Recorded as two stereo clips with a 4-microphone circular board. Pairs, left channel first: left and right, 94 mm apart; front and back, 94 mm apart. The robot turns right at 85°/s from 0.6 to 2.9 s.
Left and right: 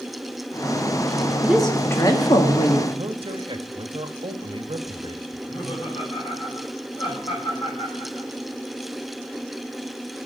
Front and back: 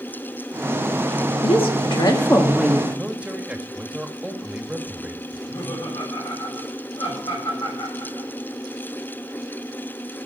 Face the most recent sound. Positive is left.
turn(degrees=55)